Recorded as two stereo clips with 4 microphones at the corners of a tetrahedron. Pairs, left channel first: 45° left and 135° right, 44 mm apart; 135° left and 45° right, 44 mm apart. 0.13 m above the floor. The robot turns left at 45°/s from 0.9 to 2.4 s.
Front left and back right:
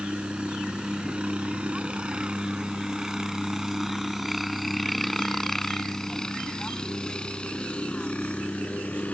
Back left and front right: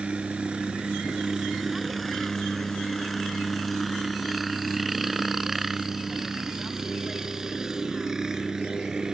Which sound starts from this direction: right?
A helicopter, at 0.0 s.